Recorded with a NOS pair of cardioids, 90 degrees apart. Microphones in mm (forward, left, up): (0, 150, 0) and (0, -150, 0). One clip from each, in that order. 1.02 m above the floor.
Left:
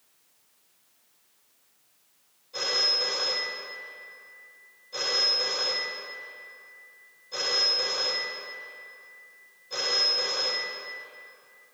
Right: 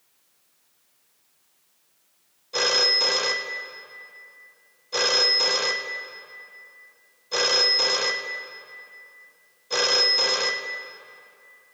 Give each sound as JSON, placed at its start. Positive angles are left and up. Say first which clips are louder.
{"t": 2.5, "sound": "a phone ringing", "louder": "right 5 dB", "azimuth_deg": -50, "distance_m": 0.6}